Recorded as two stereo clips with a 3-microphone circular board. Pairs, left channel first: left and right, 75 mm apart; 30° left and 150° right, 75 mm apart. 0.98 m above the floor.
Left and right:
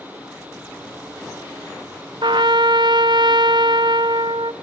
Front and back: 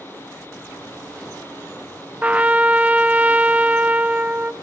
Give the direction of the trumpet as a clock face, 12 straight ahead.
3 o'clock.